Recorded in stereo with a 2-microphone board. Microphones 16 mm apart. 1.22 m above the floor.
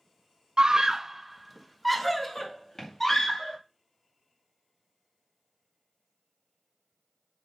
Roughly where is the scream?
Right.